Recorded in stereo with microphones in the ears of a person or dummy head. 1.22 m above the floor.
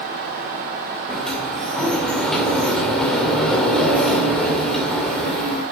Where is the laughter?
No laughter in this recording.